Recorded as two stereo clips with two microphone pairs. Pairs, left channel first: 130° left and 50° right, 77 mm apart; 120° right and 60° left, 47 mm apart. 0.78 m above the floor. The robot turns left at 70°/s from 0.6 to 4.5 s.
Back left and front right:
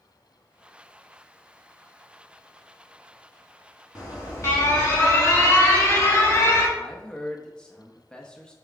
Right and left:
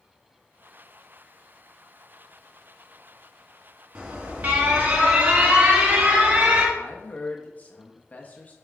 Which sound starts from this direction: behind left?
An alarm, at 4.0 s.